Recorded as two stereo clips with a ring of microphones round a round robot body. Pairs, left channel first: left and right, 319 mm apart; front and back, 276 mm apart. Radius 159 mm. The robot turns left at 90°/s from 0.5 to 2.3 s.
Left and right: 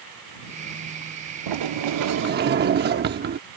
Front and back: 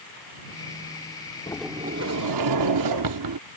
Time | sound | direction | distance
1.5 | a sliding door | 75° right | ?